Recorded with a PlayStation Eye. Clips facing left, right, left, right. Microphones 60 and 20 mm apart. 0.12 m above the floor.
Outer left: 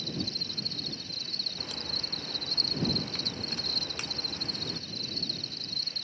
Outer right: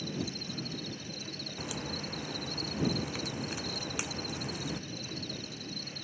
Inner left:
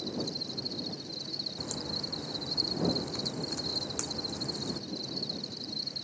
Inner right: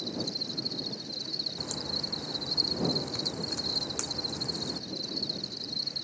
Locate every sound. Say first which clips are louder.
0.0 s an insect: even, inner right 2 dB; 10° right (ahead or behind)
1.6 s a crack: outer right 4 dB, inner right 2 dB; 5° right (ahead or behind)